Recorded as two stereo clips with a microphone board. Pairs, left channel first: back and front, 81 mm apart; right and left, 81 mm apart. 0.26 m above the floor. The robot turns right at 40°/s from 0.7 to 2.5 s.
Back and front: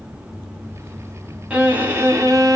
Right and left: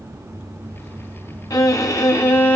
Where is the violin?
70° right, 2 m; by 2.6 s 30° right, 2 m.